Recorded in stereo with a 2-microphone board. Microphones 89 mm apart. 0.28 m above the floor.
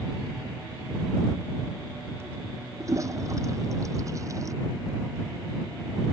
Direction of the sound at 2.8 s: 35° right (ahead or behind).